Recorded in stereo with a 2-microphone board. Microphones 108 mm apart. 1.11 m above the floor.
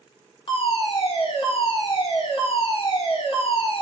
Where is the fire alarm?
65° left (ahead or behind), 3 m.